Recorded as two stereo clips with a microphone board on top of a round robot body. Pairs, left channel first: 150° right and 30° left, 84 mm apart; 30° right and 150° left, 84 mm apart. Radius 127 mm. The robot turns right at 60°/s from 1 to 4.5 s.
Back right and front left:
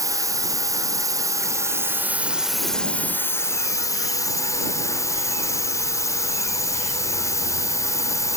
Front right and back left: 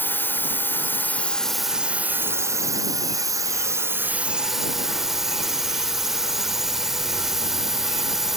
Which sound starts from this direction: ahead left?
A drone, at 0.0 s.